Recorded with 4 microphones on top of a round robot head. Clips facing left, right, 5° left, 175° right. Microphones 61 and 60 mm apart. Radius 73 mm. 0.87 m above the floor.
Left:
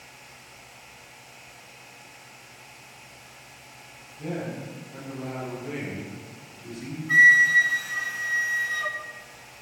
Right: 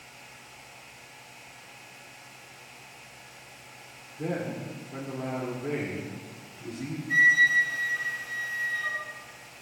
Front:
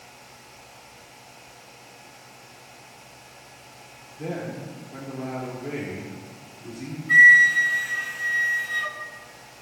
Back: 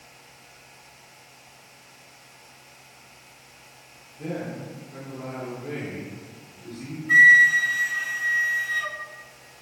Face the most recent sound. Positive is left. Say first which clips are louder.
# left 5 dB, front 1 dB
turn(degrees=100)